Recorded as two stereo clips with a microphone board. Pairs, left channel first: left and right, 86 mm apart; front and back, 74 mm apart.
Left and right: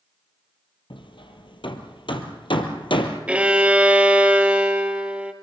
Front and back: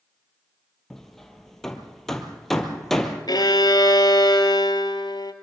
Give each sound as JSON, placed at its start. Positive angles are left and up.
{"t": 0.9, "sound": "hammering", "azimuth_deg": 85, "distance_m": 1.8}
{"t": 3.3, "sound": "a violin", "azimuth_deg": -15, "distance_m": 1.5}